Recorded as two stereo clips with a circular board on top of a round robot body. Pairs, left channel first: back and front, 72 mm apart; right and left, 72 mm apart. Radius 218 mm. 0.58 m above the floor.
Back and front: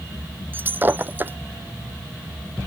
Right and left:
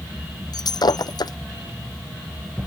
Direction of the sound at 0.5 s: 65° right.